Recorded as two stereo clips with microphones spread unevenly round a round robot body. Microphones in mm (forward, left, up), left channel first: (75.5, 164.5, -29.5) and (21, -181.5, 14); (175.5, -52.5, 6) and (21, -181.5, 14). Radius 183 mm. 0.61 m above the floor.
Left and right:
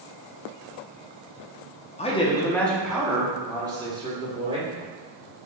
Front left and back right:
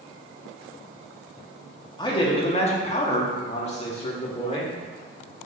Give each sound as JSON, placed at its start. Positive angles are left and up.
{"t": 2.0, "sound": "a man speaking", "azimuth_deg": 65, "distance_m": 0.6}